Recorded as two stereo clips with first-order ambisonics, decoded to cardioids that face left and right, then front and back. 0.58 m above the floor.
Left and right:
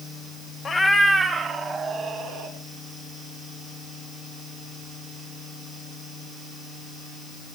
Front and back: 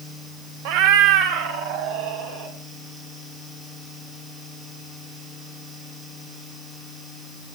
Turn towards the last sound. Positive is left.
turn(degrees=-160)